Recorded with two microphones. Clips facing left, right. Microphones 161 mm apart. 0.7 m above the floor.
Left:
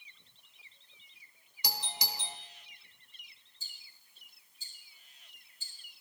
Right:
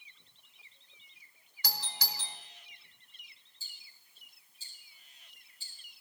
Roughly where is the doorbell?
Centre.